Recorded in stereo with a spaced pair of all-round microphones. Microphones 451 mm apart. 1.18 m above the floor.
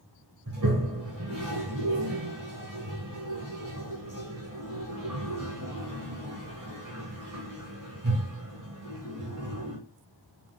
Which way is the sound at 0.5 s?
45° right (ahead or behind).